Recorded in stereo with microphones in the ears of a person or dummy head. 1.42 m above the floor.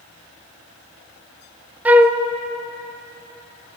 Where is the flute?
15° right (ahead or behind), 0.6 m.